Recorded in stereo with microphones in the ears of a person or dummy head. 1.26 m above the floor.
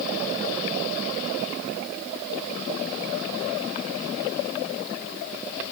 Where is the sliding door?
No sliding door in this recording.